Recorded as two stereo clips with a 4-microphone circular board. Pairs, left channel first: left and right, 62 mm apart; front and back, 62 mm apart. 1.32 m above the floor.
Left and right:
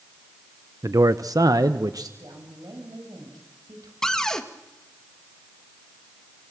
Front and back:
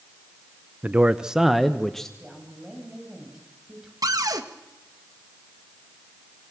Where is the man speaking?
115° right, 0.9 m; by 2.1 s 80° right, 1.5 m.